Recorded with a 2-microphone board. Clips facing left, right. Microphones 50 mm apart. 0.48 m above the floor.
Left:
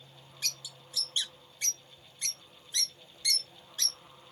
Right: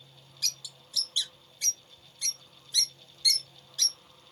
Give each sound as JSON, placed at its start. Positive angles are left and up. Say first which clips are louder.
{"t": 0.4, "sound": "a bird", "louder": "right 1 dB", "side_deg": 30, "distance_m": 1.0}